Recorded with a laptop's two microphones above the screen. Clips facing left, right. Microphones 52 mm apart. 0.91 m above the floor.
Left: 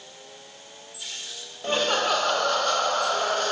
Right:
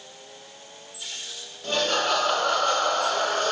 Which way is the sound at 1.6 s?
25° left (ahead or behind).